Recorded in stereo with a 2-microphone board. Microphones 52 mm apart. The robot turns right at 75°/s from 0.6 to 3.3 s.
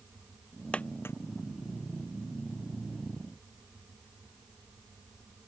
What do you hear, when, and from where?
0.7 s a dropped coin: 20° left (ahead or behind); by 1.2 s 50° left (ahead or behind)